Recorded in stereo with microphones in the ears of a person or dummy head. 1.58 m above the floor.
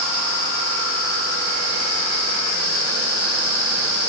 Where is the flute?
No flute in this recording.